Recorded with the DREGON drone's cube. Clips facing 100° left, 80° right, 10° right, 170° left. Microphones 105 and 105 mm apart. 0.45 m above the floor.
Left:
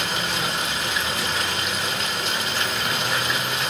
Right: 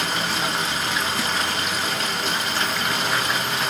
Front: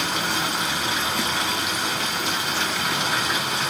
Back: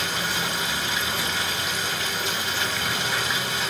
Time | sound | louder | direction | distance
0.0 | running water | right 2 dB, front 3 dB | 25° right | 1.4 m